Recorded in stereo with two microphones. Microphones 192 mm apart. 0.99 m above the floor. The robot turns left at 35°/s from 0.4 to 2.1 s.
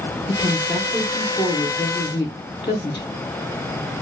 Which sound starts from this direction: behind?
A woman speaking, at 0.3 s.